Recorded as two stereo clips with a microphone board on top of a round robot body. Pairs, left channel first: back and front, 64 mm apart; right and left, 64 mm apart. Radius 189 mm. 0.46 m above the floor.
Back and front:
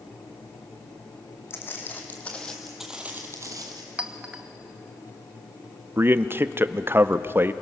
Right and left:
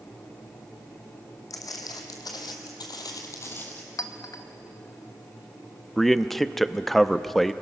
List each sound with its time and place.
1.5 s footsteps: 125° right, 1.6 m; by 3.8 s 25° right, 1.0 m
4.0 s a clink: 70° right, 1.2 m
6.0 s a man speaking: 5° right, 0.9 m